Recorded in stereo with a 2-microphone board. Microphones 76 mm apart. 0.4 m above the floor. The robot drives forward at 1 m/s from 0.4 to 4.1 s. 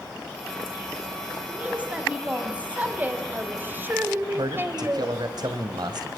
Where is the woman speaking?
15° right (ahead or behind), 4.5 m; by 5.2 s 25° right (ahead or behind), 2 m.